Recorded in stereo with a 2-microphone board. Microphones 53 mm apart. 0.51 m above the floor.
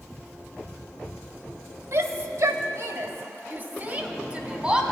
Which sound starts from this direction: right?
A shout, at 1.9 s.